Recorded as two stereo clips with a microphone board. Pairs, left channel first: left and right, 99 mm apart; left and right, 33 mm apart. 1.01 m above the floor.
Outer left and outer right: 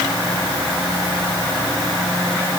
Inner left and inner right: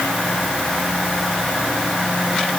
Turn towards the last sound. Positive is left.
No sound to turn to.